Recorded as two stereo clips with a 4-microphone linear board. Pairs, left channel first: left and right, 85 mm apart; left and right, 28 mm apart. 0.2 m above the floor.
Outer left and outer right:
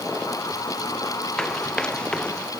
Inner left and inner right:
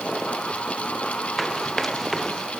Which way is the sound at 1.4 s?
5° left (ahead or behind).